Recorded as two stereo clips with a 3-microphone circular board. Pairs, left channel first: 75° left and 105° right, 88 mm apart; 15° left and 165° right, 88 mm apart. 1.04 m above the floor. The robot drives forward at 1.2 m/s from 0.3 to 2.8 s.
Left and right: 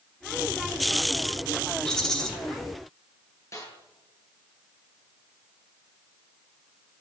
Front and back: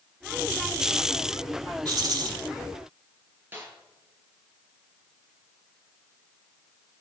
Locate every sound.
1.9 s a rattle: 155° left, 3 m; by 2.3 s 160° left, 3.5 m
3.5 s a snare drum: 130° left, 7.5 m